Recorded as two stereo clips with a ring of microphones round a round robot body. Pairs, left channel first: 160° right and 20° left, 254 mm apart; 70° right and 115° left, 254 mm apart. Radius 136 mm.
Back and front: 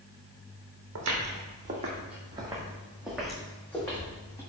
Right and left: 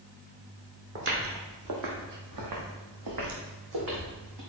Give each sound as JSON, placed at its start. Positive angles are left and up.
{"t": 0.9, "sound": "footsteps", "azimuth_deg": 65, "distance_m": 1.7}